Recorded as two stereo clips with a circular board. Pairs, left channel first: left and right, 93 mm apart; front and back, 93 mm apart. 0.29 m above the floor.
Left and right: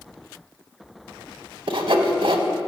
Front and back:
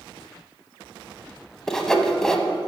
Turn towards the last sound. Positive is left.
turn(degrees=-85)